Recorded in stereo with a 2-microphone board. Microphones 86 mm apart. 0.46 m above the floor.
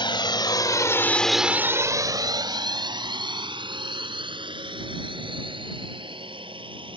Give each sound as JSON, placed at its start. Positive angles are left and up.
{"t": 0.0, "sound": "a drone", "side_deg": 65}